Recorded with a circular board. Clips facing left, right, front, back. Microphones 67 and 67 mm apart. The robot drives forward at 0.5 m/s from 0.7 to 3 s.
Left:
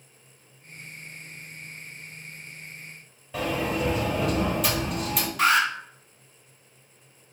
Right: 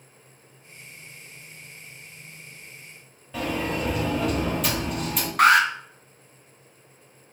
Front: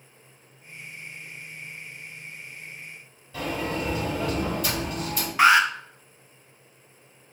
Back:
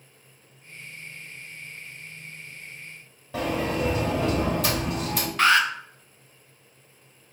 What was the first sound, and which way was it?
A sliding door, straight behind.